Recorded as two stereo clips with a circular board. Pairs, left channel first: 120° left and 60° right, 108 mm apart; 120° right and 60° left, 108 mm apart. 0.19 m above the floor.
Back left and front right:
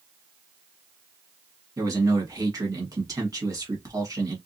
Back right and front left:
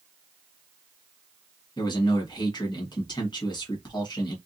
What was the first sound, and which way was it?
A man speaking, 100° right.